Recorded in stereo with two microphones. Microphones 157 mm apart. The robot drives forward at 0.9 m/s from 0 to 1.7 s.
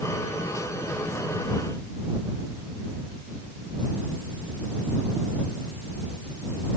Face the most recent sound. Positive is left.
No sound to turn to.